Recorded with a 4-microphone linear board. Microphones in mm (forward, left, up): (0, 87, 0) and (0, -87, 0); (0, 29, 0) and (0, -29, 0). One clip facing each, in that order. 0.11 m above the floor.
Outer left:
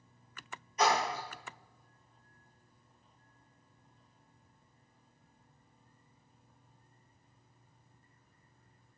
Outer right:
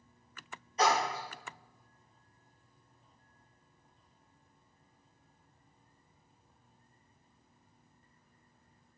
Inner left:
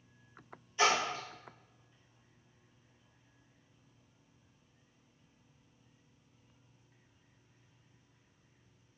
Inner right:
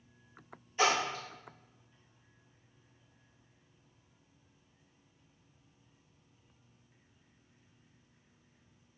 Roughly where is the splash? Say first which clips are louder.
Even, even; right.